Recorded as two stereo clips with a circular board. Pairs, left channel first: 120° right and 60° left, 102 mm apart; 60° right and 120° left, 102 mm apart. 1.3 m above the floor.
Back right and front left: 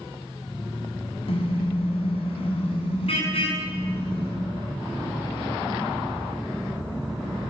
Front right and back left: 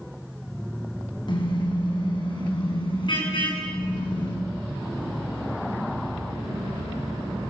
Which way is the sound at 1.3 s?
100° right.